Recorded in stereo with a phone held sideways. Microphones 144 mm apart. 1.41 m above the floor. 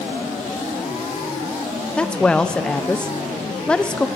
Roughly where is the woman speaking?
Centre.